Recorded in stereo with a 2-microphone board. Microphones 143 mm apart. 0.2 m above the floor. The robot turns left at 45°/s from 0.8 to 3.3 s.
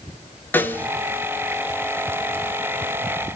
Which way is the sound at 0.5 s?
15° left (ahead or behind).